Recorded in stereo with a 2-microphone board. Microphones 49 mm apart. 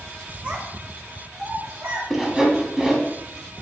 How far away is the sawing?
About 0.7 m.